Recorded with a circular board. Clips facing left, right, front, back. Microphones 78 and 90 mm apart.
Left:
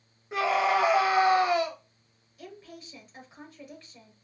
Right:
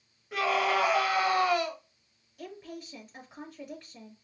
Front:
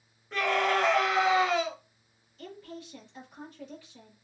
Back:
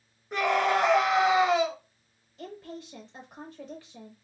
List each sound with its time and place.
0.3 s a scream: 125° left, 1.1 m
2.4 s a woman speaking: 175° right, 3.5 m